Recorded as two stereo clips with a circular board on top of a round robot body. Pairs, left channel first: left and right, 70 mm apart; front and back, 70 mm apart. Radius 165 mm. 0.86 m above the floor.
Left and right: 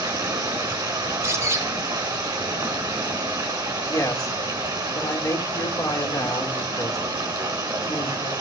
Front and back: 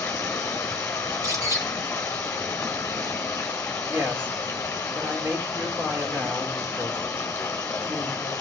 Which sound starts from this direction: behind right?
A bird, at 1.1 s.